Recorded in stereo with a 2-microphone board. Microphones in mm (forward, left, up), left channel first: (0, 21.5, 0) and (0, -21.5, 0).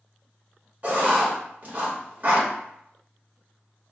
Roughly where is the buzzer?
No buzzer in this recording.